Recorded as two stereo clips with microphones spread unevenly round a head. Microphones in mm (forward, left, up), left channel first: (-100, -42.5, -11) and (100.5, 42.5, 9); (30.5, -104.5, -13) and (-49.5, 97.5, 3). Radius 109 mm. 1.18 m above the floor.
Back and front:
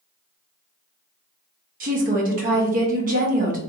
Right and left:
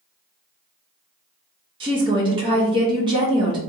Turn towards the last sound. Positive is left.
turn(degrees=50)